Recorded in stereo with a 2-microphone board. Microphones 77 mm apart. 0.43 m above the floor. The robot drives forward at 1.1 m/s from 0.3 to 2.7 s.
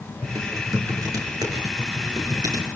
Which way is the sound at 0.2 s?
45° right (ahead or behind).